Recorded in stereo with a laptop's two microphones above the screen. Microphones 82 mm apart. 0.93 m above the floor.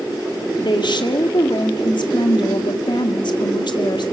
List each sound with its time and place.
0.6 s a woman speaking: 65° left (ahead or behind), 2.5 m